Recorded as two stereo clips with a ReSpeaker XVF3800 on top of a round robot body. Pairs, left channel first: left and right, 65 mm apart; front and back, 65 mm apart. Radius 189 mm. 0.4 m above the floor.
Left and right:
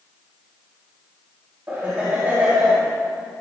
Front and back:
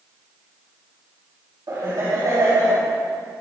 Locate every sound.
1.7 s laughter: 150° right, 4 m